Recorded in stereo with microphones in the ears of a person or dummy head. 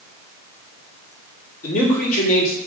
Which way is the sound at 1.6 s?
50° left (ahead or behind).